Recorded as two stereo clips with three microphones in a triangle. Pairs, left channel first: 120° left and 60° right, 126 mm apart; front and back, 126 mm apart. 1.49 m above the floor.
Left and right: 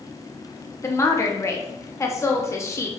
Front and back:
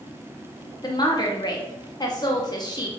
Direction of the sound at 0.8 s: 55° left.